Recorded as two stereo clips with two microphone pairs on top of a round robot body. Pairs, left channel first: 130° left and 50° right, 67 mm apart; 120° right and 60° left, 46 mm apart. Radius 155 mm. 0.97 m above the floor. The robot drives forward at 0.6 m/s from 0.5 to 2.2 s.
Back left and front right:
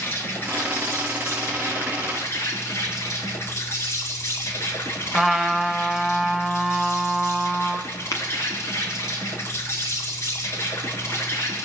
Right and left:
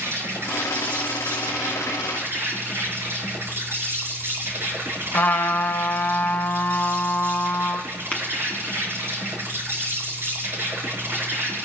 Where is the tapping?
175° left, 0.7 m.